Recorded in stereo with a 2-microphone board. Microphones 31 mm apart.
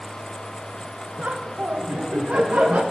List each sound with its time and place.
1.2 s laughter: 55° right (ahead or behind), 0.7 m